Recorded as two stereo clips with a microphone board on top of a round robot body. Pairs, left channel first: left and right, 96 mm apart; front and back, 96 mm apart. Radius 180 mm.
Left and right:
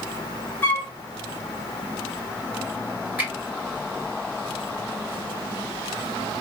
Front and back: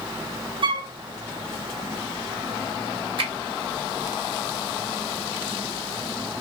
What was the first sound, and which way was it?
A flute, 155° left.